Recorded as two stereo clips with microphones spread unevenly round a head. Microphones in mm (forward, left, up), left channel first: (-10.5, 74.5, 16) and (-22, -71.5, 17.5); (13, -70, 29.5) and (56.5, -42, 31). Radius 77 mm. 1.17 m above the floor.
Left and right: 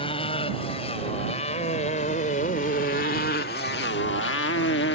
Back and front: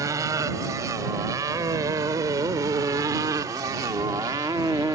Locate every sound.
0.0 s a motorcycle: 25° left; by 5.0 s 90° left